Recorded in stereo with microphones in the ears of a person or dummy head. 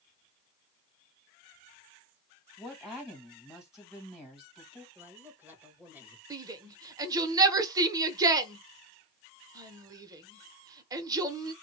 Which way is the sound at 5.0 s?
10° right (ahead or behind).